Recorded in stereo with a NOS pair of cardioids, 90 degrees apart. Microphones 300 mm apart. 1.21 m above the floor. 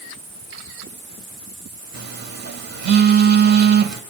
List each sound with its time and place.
1.9 s a phone buzzing: 55° right, 2 m